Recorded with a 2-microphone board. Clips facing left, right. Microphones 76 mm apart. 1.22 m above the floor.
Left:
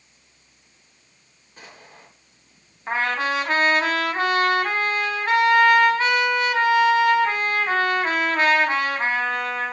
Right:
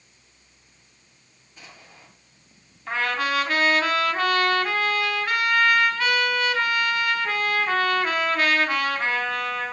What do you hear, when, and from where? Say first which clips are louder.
1.6 s an explosion: left 3 dB; 50° left (ahead or behind), 8.5 m
2.9 s a trumpet: left 2 dB; 35° left (ahead or behind), 3.5 m